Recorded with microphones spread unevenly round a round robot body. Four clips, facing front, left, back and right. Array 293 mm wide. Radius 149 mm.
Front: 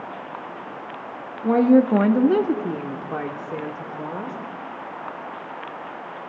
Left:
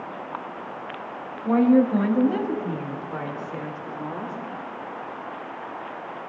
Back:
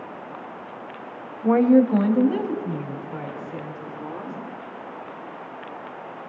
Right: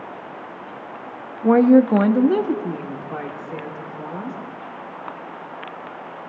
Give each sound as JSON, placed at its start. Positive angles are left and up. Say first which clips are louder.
{"t": 1.4, "sound": "a woman speaking", "louder": "right 5 dB, even", "azimuth_deg": -80, "distance_m": 1.0}